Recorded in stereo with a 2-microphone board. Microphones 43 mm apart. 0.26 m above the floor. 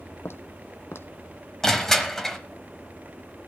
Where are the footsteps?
75° left (ahead or behind), 0.7 m.